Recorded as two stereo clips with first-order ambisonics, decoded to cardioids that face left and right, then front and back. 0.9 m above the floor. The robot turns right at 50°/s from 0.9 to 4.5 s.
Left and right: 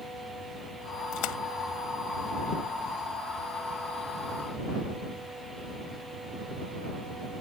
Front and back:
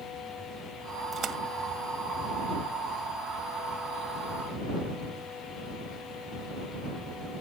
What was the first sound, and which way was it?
A splash, 115° left.